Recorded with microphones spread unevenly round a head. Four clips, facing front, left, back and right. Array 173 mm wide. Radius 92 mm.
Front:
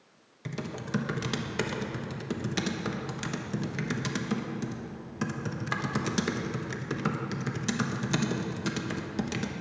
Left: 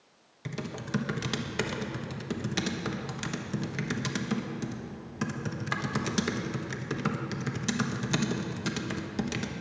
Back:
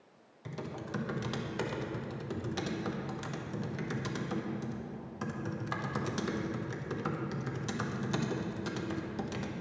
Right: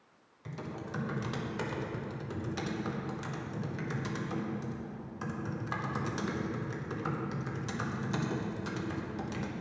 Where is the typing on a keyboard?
45° left, 1.3 m.